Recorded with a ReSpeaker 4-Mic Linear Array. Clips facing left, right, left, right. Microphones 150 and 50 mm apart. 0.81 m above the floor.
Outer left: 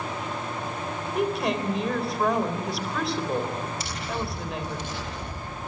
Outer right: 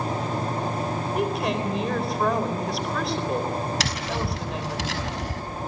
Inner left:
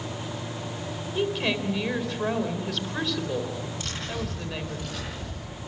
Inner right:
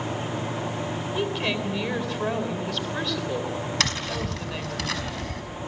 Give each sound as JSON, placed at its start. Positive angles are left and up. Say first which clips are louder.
{"t": 1.1, "sound": "a woman speaking", "louder": "outer left 1 dB, inner left 2 dB", "side_deg": 0, "distance_m": 3.5}
{"t": 3.8, "sound": "tapping", "louder": "outer right 3 dB, inner right 5 dB", "side_deg": -75, "distance_m": 5.5}